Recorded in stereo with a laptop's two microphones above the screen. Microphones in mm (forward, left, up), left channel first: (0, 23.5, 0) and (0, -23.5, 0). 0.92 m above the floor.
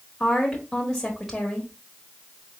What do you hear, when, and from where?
0.2 s a woman speaking: centre (ahead or behind), 1.4 m